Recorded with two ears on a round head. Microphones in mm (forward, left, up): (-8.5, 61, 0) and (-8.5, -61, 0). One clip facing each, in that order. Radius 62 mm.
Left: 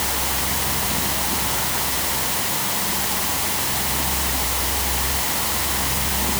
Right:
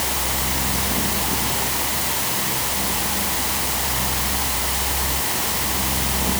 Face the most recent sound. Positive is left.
No sound to turn to.